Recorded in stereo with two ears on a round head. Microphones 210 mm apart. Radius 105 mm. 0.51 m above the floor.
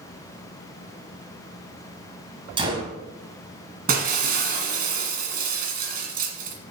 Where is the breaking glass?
40° right (ahead or behind), 1.7 m.